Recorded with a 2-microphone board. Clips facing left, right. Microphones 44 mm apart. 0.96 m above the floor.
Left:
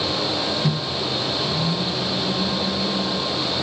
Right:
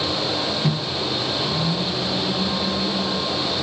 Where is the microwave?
10° right (ahead or behind), 0.8 m.